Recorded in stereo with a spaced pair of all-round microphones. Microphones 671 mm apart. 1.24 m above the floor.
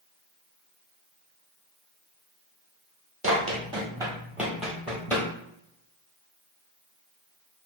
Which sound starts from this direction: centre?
Running footsteps, at 3.2 s.